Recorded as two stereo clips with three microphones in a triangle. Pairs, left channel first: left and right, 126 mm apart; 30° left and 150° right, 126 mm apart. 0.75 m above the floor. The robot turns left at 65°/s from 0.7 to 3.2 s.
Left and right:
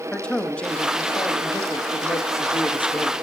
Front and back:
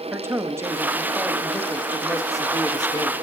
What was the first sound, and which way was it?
A man speaking, 165° left.